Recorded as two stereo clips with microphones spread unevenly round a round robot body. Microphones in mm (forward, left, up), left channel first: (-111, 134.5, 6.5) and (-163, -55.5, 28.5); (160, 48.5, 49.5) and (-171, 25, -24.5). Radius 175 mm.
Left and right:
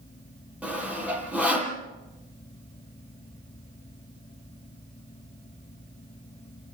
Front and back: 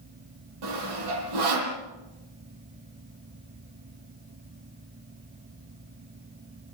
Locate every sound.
0.6 s sawing: 170° left, 7 m